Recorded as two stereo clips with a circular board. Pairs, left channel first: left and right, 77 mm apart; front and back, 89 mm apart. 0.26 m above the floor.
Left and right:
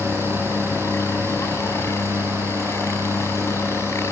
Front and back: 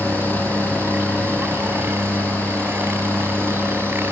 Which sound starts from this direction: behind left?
A helicopter, at 0.0 s.